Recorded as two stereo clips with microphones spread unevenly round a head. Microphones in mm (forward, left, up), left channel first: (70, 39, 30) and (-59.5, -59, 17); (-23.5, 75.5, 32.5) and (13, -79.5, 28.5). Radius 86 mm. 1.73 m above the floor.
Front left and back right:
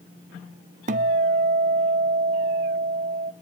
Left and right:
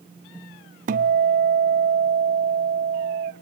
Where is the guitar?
105° right, 0.8 m.